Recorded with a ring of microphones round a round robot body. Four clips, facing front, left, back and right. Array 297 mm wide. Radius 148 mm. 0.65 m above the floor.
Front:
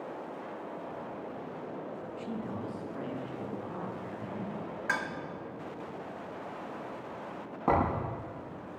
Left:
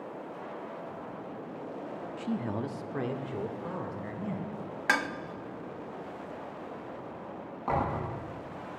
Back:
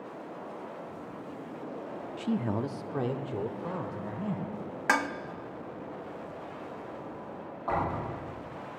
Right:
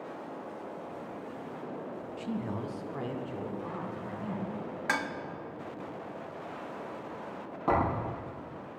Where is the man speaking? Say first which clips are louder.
Left 3 dB, back 9 dB; 175° right, 0.6 m; by 4.5 s 150° left, 3 m.